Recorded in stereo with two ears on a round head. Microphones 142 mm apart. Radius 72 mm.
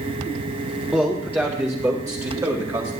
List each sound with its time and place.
0.9 s a man speaking: 5° right (ahead or behind), 1.8 m; by 2.9 s 25° right (ahead or behind), 2.5 m